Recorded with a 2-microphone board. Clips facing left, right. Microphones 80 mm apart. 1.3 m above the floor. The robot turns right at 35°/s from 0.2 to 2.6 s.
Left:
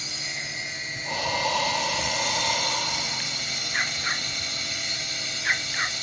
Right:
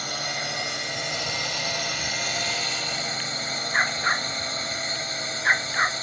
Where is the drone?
120° right; by 6.0 s 35° right.